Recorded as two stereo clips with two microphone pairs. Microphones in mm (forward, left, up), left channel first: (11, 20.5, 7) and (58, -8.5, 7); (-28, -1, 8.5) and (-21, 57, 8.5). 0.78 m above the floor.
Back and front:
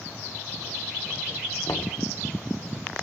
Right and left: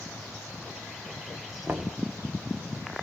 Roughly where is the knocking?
Behind left.